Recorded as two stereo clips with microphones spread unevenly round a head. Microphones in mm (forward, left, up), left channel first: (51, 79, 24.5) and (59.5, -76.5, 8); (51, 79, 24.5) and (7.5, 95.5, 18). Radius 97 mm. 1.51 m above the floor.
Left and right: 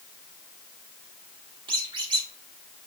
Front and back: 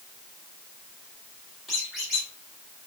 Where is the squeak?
90° right, 1.0 m.